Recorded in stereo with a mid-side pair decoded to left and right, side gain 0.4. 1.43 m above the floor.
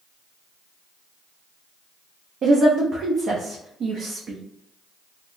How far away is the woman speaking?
About 0.6 m.